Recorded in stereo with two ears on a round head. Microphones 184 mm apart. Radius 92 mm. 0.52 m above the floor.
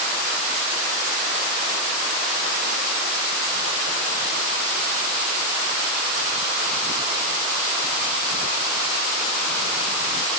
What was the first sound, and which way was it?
Only background noise.